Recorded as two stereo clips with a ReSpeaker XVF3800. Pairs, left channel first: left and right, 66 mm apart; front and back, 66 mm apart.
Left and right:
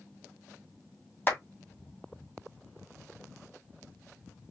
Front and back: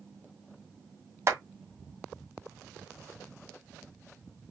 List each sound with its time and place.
1.3 s a clap: 145° left, 2 m